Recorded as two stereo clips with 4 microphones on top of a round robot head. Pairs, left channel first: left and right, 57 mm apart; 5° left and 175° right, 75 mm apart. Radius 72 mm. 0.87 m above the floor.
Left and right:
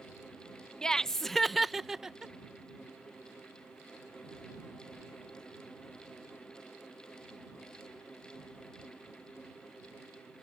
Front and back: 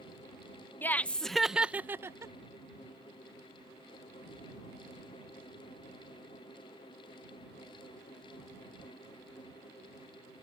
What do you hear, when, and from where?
0.8 s laughter: 25° left; by 2.3 s 165° right